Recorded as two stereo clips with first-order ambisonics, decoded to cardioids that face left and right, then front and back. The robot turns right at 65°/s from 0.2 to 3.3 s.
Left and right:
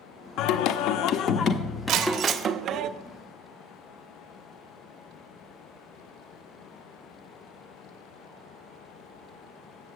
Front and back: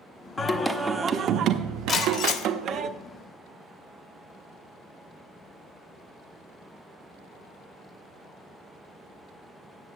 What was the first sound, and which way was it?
Singing, 70° left.